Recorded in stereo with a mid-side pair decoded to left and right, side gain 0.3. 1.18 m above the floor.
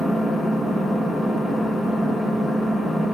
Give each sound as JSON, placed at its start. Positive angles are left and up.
{"t": 0.0, "sound": "an engine running", "azimuth_deg": 40, "distance_m": 1.3}